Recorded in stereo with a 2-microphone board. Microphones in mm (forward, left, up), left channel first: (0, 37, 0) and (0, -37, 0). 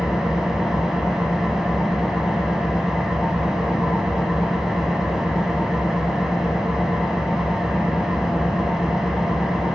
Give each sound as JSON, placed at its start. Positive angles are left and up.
{"t": 0.0, "sound": "an engine running", "side_deg": -5, "distance_m": 0.8}